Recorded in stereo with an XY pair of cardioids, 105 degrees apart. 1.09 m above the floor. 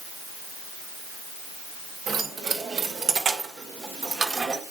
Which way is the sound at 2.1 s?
55° right.